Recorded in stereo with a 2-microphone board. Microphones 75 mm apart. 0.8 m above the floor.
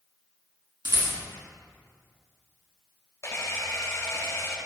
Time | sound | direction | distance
0.8 | a rattle | 80° right | 4 m
3.2 | a camera shutter | 40° left (ahead or behind) | 3 m